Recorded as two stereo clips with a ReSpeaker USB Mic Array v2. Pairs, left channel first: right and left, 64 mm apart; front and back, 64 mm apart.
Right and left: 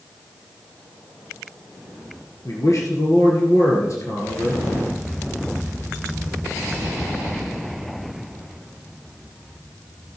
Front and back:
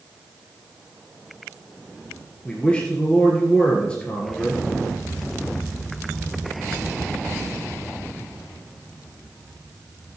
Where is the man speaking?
70° right, 2 m.